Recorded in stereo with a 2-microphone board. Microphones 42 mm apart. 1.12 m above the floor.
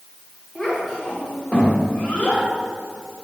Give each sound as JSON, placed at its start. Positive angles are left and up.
{"t": 0.6, "sound": "a child speaking", "side_deg": 5, "distance_m": 2.0}